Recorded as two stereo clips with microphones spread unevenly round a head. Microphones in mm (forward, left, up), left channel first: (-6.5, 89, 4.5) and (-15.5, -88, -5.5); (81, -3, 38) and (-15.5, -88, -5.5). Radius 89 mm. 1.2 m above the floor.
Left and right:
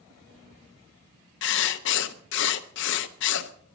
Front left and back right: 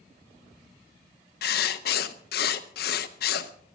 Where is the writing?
55° left, 0.7 m.